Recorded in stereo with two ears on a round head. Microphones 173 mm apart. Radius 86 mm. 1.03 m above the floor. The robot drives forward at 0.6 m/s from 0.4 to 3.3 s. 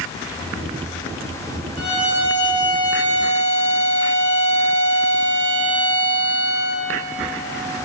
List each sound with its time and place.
1.8 s a violin: 30° left (ahead or behind), 1.2 m; by 6.8 s 20° left (ahead or behind), 2 m